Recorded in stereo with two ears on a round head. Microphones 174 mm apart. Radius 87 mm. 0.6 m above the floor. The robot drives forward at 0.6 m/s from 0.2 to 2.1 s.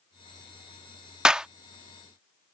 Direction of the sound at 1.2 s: 5° right (ahead or behind).